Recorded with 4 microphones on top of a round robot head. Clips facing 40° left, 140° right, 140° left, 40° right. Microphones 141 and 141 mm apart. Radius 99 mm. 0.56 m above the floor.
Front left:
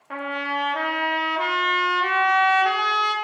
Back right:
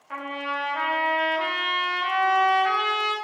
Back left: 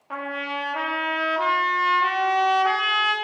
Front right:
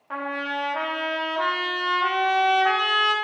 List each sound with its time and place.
0.1 s a trumpet: 55° left, 1.2 m